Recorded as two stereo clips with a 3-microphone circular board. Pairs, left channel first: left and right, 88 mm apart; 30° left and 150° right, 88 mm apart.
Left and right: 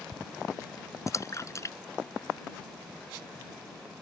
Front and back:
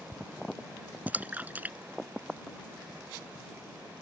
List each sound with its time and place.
1.1 s a splash: 140° left